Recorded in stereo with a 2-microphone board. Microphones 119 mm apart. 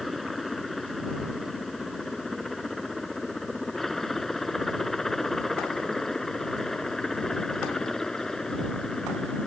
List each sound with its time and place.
0.0 s a helicopter: centre (ahead or behind); by 9.5 s 5° left (ahead or behind)